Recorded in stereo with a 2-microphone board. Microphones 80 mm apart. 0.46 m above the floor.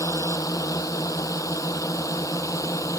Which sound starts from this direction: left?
A drone, at 0.0 s.